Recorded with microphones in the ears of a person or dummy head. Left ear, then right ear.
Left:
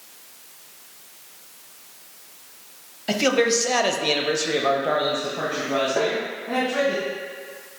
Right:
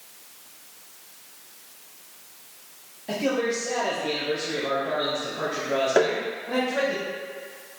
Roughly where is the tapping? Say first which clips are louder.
Right 5 dB; right.